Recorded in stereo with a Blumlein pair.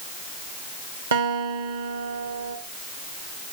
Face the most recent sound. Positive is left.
turn(degrees=-65)